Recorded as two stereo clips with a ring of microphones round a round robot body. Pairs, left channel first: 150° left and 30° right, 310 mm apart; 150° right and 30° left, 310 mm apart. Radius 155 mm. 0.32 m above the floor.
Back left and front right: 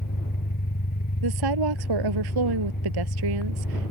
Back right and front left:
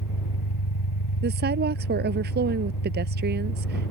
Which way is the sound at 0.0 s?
150° right.